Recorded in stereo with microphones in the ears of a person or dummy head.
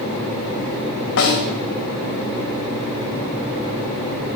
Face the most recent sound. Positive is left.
turn(degrees=60)  # may be behind; listen again after turning